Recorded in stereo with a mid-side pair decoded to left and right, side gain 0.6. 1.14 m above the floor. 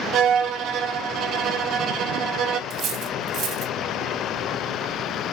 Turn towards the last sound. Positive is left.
turn(degrees=-60)